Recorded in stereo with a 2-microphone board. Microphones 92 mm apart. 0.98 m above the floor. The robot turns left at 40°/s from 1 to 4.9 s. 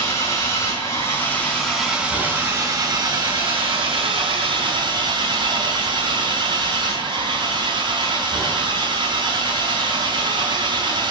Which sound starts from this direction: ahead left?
An engine running, at 0.0 s.